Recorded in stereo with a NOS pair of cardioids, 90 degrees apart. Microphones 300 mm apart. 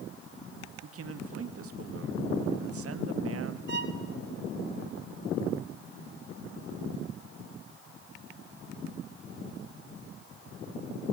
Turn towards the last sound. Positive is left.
turn(degrees=-35)